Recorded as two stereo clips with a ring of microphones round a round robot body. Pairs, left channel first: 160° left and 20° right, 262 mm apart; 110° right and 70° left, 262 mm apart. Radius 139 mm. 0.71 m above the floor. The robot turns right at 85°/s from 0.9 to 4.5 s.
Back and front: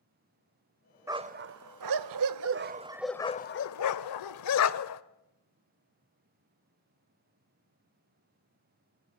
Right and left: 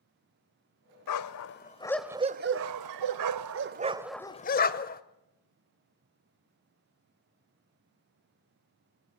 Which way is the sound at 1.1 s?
100° right.